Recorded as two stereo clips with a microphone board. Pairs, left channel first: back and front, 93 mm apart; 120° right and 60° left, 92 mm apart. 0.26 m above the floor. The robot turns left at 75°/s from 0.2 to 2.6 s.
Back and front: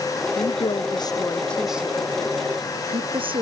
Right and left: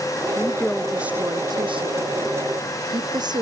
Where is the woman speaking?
170° right; by 3.4 s 20° left.